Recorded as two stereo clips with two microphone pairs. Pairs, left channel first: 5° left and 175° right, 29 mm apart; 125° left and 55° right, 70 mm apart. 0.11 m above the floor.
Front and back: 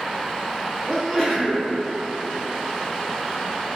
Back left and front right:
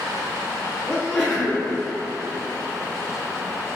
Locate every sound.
0.9 s a sneeze: 75° left, 1.2 m